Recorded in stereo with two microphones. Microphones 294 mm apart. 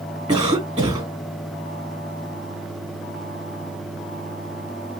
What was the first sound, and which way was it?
A cough, 15° right (ahead or behind).